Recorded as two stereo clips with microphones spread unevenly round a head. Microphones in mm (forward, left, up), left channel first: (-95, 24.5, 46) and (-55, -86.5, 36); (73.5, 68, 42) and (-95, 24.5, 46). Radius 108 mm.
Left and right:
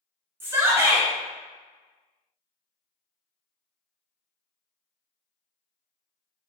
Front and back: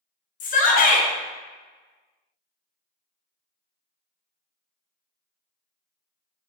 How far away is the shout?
About 0.8 m.